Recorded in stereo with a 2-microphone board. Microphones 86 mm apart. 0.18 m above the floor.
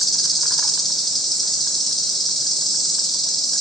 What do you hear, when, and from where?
0.0 s an insect: centre (ahead or behind), 0.7 m